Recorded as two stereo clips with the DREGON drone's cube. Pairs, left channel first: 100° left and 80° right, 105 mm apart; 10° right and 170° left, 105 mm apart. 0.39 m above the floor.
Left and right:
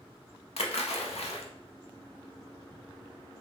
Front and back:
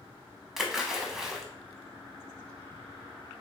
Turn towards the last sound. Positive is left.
turn(degrees=85)